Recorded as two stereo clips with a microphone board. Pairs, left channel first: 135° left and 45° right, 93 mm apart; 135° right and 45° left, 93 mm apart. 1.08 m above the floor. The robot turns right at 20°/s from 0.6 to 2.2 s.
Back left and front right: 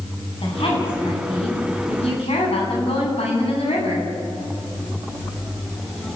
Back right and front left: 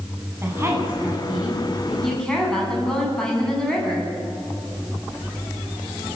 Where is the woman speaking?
110° left, 9 m; by 4.1 s 140° left, 9 m.